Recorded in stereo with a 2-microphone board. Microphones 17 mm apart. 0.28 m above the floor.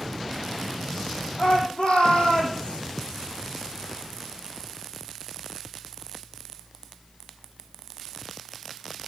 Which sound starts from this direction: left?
A shout, at 1.4 s.